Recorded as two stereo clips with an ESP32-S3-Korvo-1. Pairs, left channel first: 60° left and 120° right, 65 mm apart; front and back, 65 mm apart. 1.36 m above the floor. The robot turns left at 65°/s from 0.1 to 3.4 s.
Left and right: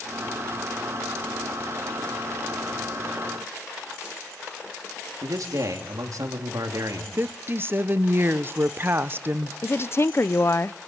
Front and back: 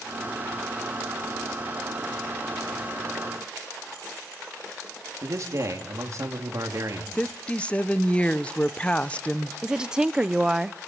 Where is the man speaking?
145° right, 3.5 m.